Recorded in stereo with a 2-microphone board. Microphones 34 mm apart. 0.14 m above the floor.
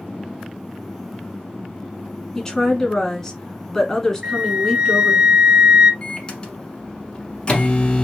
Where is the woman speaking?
15° left (ahead or behind), 1.1 m.